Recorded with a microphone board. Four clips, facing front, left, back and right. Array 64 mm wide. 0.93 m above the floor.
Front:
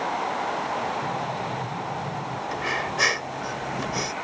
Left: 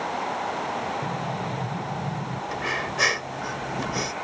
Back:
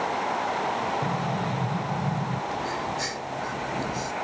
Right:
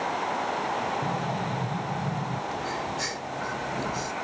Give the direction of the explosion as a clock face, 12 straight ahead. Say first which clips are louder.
Even, back 1 dB; 6 o'clock.